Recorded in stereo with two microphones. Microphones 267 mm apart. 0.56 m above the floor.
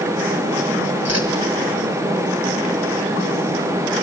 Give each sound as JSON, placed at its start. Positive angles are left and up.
{"t": 1.1, "sound": "a whoosh", "side_deg": -65, "distance_m": 2.5}